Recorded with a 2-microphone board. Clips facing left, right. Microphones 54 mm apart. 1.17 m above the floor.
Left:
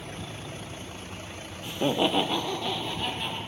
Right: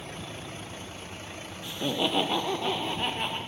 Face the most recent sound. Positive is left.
turn(degrees=-40)  # may be behind; listen again after turning